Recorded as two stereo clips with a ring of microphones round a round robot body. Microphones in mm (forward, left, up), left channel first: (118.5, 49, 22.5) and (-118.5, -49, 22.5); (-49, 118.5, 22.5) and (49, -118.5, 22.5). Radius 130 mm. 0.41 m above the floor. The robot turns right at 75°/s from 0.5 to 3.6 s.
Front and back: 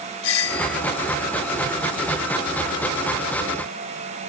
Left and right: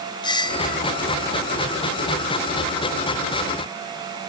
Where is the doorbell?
40° left; by 0.8 s 65° left.